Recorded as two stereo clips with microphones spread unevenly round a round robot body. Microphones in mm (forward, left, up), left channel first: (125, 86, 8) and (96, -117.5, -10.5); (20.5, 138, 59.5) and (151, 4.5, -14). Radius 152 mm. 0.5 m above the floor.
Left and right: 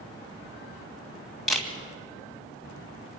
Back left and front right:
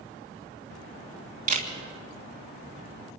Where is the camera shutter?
10° right, 3 m.